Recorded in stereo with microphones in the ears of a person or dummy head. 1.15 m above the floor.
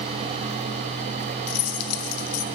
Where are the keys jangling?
85° left, 0.6 m.